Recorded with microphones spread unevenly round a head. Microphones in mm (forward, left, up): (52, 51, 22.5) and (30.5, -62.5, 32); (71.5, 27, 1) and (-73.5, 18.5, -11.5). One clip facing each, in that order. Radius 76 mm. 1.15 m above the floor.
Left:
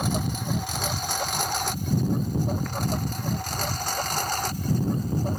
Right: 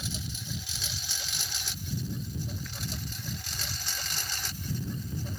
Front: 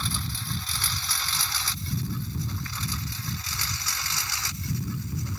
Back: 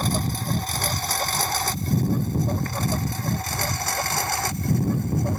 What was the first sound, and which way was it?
A lawn mower, 135° left.